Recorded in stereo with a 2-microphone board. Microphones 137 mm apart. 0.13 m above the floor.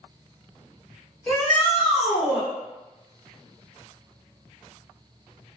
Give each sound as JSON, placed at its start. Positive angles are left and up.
{"t": 1.3, "sound": "a shout", "side_deg": 5, "distance_m": 1.9}